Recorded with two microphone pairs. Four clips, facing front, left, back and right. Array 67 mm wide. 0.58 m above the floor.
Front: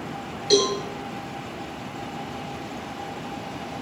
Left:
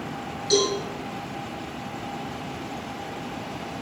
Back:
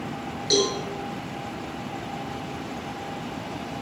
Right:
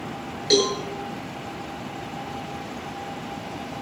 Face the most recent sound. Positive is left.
turn(degrees=-85)